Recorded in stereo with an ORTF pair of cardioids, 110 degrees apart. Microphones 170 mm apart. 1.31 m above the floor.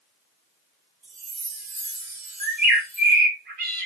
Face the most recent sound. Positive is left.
turn(degrees=-60)